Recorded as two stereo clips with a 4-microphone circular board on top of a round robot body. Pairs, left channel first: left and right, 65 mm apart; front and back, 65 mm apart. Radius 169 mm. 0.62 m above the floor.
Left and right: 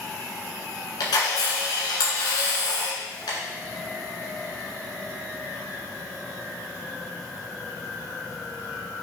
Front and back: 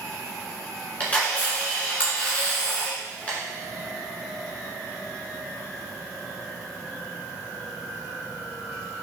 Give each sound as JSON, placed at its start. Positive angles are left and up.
{"t": 1.0, "sound": "a camera shutter", "azimuth_deg": 70, "distance_m": 1.4}